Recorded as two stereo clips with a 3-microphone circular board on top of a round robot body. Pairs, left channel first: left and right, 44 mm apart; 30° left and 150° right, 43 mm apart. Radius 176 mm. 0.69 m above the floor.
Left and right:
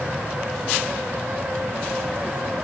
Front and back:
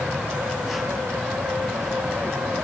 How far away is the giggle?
No giggle in this recording.